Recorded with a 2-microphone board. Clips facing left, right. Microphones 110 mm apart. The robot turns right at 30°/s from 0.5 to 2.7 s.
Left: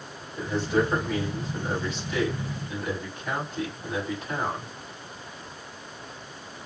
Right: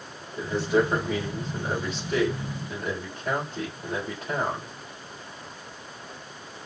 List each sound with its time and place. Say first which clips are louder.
0.4 s a man speaking: right 2 dB; 175° right, 3.5 m; by 4.7 s 110° right, 3.5 m